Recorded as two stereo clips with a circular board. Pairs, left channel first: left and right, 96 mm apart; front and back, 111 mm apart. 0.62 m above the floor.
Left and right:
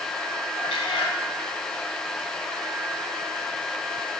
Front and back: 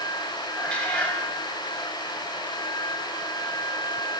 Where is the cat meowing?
80° left, 0.9 m.